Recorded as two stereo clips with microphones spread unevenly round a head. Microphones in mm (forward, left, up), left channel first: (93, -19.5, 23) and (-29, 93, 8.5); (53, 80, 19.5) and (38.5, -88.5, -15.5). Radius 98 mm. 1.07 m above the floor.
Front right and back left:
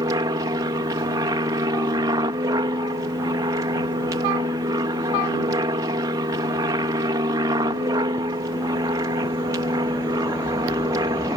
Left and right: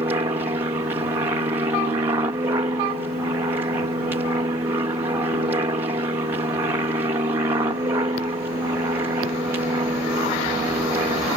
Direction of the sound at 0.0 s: 160° right.